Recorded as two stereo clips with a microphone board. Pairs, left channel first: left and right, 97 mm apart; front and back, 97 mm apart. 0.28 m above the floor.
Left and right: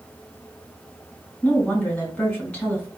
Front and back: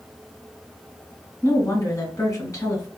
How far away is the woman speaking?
About 1.9 m.